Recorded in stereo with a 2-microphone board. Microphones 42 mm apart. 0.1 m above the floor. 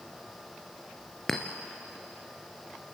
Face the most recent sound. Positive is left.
turn(degrees=10)  # may be behind; listen again after turning